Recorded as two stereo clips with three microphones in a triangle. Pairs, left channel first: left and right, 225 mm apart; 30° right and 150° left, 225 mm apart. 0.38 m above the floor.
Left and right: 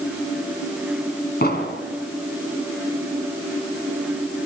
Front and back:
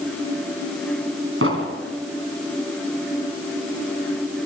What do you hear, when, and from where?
1.4 s an explosion: 135° left, 3.5 m